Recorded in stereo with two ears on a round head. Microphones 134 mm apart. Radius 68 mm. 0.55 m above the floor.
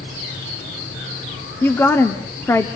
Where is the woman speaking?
15° left (ahead or behind), 1.1 m.